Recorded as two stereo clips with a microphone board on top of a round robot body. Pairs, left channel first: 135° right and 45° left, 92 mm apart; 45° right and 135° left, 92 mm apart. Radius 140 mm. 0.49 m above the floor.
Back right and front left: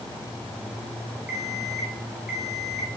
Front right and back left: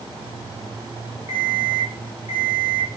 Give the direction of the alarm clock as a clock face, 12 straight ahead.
1 o'clock.